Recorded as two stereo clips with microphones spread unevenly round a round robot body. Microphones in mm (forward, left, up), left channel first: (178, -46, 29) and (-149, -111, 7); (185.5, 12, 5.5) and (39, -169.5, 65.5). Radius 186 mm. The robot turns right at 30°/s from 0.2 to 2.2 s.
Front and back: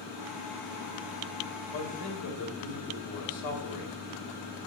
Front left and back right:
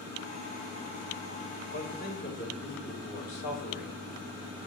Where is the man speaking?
5° left, 3.5 m; by 4.6 s 15° left, 3.5 m.